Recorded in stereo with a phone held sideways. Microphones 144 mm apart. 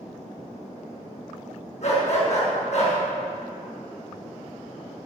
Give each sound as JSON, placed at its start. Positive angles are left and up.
{"t": 1.8, "sound": "a dog barking", "side_deg": 55, "distance_m": 6.0}